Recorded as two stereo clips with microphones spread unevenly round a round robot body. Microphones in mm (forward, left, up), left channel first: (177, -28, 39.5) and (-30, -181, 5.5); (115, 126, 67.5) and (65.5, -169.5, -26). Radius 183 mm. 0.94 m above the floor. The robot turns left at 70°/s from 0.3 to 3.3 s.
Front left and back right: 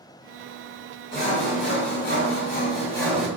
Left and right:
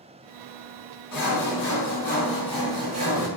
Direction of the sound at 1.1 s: 90° left.